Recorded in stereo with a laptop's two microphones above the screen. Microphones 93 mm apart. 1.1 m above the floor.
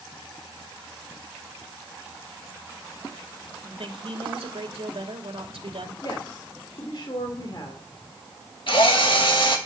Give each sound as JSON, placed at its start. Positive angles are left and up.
{"t": 3.6, "sound": "a woman speaking", "side_deg": -80, "distance_m": 2.5}
{"t": 6.0, "sound": "a woman speaking", "side_deg": 55, "distance_m": 2.5}
{"t": 8.7, "sound": "a drill", "side_deg": 65, "distance_m": 1.7}